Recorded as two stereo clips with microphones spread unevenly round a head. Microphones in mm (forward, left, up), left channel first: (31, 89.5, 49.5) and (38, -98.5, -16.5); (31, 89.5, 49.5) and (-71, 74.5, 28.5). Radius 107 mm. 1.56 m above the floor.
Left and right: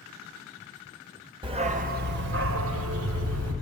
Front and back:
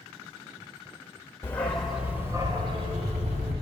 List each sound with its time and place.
1.4 s a dog barking: 10° right, 1.4 m; by 3.5 s 115° right, 2.5 m